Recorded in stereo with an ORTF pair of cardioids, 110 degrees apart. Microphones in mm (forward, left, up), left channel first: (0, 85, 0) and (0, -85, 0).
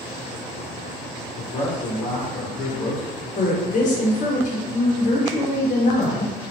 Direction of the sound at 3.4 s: 50° left.